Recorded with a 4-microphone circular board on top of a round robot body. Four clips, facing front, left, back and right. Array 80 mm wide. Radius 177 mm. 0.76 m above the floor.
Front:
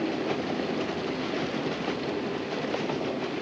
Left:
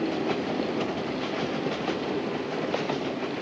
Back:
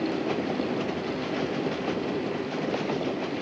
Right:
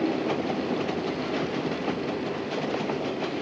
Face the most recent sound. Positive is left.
No sound to turn to.